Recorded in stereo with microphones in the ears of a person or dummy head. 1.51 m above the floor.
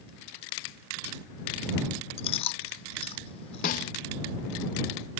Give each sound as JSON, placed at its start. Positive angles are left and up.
{"t": 2.2, "sound": "chewing", "side_deg": 30}
{"t": 3.6, "sound": "a snare drum", "side_deg": 50}